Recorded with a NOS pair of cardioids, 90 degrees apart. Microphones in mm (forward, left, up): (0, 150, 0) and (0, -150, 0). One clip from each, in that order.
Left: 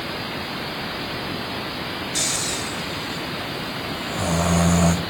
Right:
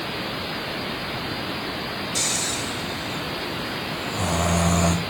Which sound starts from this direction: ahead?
Snoring, at 2.1 s.